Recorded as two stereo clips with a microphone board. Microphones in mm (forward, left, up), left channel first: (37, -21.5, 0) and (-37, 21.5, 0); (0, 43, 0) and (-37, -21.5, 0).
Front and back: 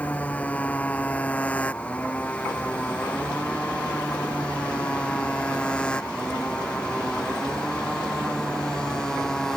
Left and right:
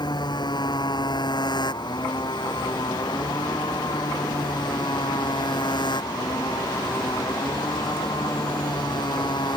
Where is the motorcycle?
45° left; by 9.6 s 55° left.